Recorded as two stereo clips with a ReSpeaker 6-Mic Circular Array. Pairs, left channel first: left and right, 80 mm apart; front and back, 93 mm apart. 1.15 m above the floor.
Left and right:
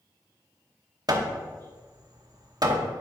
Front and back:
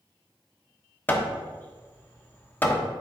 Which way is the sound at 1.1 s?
65° right.